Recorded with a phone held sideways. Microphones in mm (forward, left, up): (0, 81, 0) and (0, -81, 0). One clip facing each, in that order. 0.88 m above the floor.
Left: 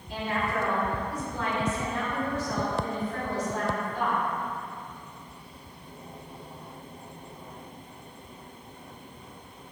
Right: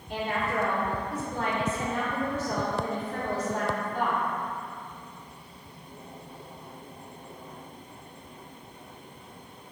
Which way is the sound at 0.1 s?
55° right (ahead or behind).